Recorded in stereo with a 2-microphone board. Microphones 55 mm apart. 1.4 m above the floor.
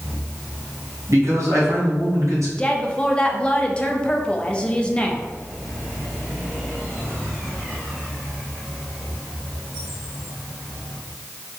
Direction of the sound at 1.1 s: 65° right (ahead or behind).